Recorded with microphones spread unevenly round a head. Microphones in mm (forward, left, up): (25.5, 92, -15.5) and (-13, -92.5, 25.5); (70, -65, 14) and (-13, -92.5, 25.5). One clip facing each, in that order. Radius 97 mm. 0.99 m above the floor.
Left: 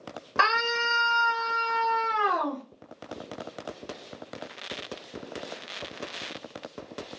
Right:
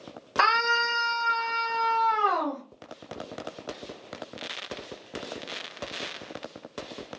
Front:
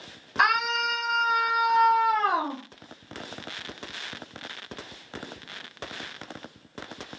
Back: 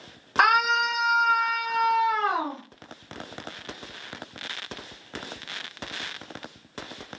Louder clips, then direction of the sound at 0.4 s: Even, back 3 dB; 160° left.